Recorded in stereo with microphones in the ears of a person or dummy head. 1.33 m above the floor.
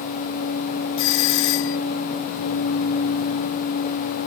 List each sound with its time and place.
1.0 s a doorbell: 60° left (ahead or behind)